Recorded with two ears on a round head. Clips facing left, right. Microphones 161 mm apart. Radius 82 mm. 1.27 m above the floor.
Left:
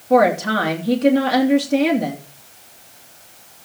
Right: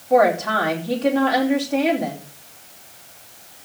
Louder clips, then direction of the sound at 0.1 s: Left 1 dB; 50° left (ahead or behind).